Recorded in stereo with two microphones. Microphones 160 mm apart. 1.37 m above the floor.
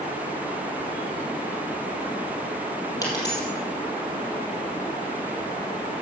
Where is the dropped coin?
25° left (ahead or behind), 4 m.